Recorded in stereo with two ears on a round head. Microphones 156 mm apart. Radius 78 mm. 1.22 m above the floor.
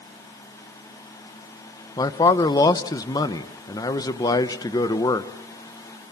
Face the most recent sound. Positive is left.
turn(degrees=20)  # may be behind; listen again after turning